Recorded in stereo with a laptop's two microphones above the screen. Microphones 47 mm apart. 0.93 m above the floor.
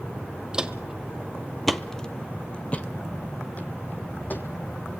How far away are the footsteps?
About 1.3 m.